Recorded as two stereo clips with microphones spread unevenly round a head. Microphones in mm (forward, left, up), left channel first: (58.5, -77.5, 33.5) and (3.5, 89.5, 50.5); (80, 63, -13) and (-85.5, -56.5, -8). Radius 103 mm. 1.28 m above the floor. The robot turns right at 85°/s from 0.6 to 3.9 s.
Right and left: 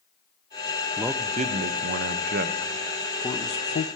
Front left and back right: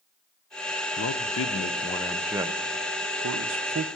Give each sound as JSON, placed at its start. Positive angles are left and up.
{"t": 1.0, "sound": "a man speaking", "azimuth_deg": 20, "distance_m": 0.6}